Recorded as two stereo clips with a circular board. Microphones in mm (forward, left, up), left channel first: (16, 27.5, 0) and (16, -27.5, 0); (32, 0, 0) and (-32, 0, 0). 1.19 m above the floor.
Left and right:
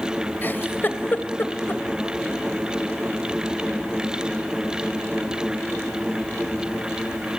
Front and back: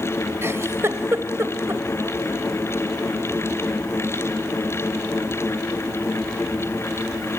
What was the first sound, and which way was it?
A giggle, 140° left.